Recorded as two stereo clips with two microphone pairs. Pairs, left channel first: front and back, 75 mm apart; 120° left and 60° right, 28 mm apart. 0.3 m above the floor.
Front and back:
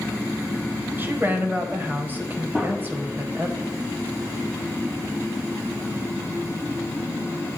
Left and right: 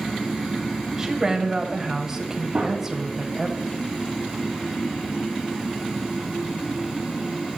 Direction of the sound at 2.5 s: 90° right.